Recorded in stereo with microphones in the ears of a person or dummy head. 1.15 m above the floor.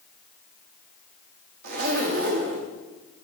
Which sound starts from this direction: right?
A zipper, at 1.6 s.